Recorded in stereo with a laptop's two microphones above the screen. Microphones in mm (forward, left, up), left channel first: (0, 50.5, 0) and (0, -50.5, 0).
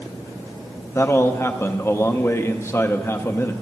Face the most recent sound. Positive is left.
turn(degrees=25)  # may be behind; listen again after turning